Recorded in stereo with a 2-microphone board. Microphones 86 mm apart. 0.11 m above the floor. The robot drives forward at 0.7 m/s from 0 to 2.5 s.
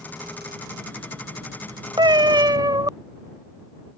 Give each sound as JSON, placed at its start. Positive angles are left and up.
{"t": 2.0, "sound": "a cat meowing", "side_deg": -65}